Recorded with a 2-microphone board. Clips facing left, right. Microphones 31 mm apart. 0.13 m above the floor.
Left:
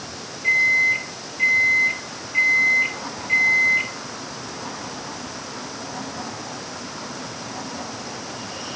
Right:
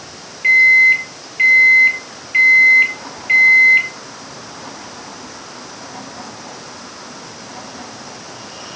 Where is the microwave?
45° right (ahead or behind), 1.9 m.